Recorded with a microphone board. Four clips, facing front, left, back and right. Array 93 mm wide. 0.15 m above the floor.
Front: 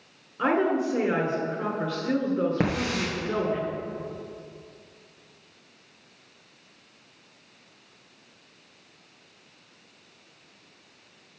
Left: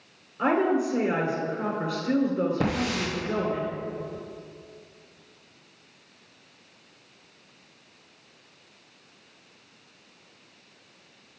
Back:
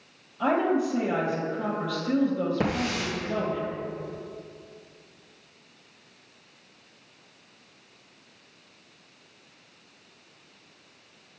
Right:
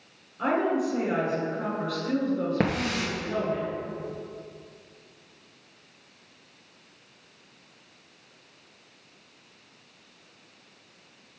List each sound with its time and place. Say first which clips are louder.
0.4 s a woman speaking: left 2 dB, even; 25° left, 2 m
2.6 s a hiss: even, front 1 dB; 60° right, 2.5 m